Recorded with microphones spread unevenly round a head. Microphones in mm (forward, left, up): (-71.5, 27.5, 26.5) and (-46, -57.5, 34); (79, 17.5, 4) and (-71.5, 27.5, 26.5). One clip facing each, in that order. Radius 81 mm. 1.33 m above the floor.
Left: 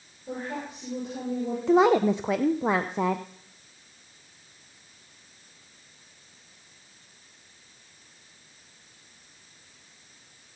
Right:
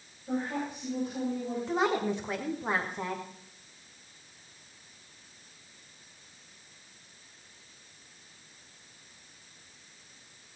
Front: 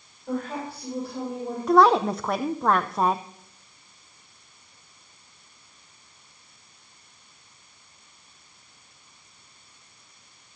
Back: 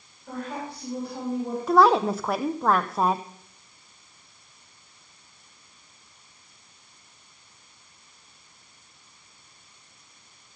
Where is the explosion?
I don't hear an explosion.